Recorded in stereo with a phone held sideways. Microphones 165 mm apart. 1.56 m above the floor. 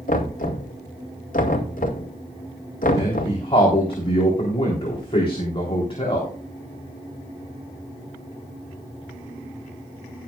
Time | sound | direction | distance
0.1 | knocking | 60° left (ahead or behind) | 2 m
3.0 | a man speaking | 35° left (ahead or behind) | 3.5 m